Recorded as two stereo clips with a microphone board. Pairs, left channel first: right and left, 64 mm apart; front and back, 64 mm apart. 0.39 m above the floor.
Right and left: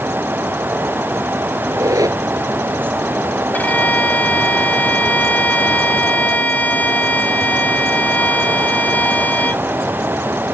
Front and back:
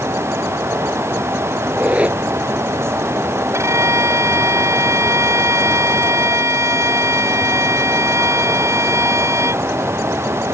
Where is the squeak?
110° left.